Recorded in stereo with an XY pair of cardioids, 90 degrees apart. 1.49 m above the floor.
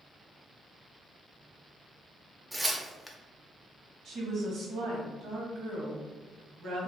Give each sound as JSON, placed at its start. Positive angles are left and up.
{"t": 2.5, "sound": "tearing paper", "azimuth_deg": -5, "distance_m": 0.5}
{"t": 4.0, "sound": "a woman speaking", "azimuth_deg": -70, "distance_m": 1.0}